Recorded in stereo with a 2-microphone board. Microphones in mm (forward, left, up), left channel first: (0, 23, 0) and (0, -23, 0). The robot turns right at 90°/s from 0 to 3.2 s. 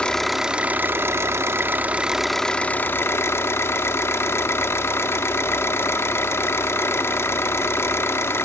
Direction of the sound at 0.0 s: 155° left.